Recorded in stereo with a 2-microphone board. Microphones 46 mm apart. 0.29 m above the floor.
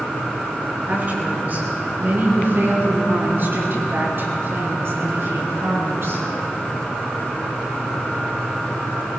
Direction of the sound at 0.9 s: 40° right (ahead or behind).